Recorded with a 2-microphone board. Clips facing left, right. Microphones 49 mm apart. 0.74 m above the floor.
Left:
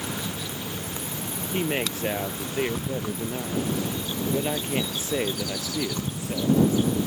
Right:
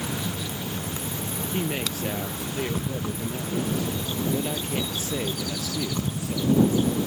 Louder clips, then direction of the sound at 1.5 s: Left 3 dB; 30° left (ahead or behind).